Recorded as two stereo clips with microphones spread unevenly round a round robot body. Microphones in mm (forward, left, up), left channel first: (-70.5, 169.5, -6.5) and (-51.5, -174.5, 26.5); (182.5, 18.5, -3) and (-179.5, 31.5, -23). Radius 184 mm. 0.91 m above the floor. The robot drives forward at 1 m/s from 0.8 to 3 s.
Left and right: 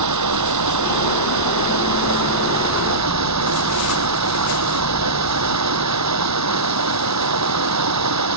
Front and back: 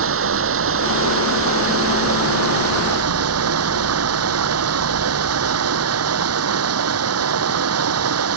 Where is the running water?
125° right; by 8.4 s 130° right.